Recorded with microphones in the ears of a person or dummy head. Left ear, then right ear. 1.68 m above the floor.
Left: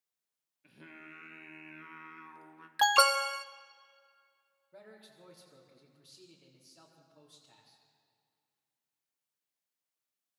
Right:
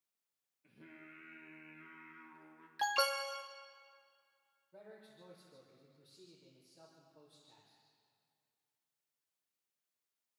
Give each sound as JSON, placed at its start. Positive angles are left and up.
{"t": 0.6, "sound": "singing", "side_deg": 45, "distance_m": 1.5}
{"t": 2.8, "sound": "an alarm", "side_deg": 35, "distance_m": 0.5}
{"t": 4.7, "sound": "a man speaking", "side_deg": 50, "distance_m": 3.5}